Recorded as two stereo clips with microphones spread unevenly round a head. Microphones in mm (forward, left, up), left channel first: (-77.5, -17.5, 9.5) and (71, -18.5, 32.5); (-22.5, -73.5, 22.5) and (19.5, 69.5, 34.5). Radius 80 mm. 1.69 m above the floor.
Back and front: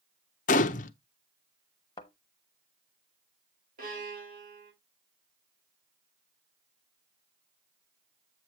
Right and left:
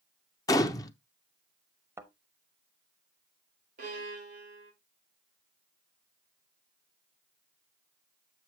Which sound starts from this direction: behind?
A gunshot, at 0.5 s.